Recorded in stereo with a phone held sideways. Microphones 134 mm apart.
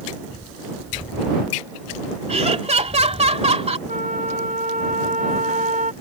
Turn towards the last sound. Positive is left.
turn(degrees=-75)  # may be behind; listen again after turning